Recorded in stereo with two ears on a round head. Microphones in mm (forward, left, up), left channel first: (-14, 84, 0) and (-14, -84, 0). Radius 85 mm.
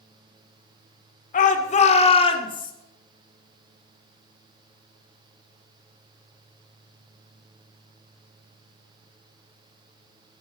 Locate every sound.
1.3 s a shout: 45° left (ahead or behind), 2.5 m; by 2.7 s 25° left (ahead or behind), 3 m